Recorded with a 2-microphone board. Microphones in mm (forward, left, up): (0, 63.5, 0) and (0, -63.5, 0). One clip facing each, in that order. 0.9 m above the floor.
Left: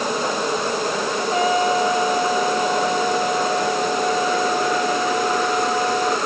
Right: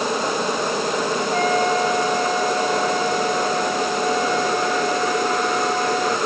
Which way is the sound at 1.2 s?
10° left (ahead or behind).